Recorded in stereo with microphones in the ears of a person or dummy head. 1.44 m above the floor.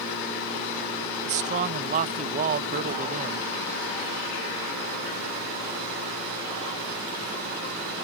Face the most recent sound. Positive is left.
turn(degrees=-45)  # may be behind; listen again after turning